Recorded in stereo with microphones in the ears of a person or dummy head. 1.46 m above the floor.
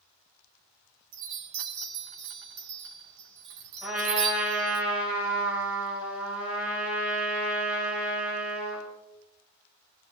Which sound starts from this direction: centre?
A trumpet, at 3.8 s.